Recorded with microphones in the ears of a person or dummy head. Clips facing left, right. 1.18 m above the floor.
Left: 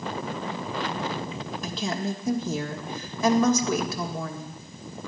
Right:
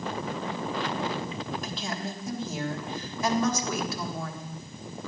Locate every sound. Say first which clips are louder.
1.6 s a woman speaking: left 5 dB; 70° left (ahead or behind), 1.9 m